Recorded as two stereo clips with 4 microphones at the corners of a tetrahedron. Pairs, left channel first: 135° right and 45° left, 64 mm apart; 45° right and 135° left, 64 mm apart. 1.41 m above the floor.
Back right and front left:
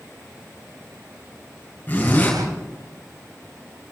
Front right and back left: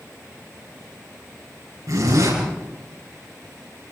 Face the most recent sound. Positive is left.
turn(degrees=160)